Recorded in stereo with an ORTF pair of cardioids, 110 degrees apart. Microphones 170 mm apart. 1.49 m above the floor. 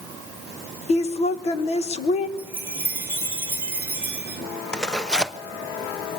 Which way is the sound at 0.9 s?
40° left.